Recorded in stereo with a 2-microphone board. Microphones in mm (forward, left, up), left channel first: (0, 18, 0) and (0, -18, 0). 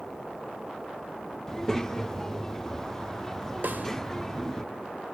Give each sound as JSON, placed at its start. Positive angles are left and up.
{"t": 1.5, "sound": "a child speaking", "side_deg": 15, "distance_m": 0.5}
{"t": 3.6, "sound": "a snare drum", "side_deg": -60, "distance_m": 1.3}